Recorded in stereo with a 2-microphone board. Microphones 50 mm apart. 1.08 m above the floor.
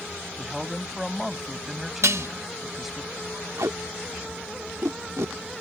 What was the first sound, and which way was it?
A man speaking, 5° right (ahead or behind).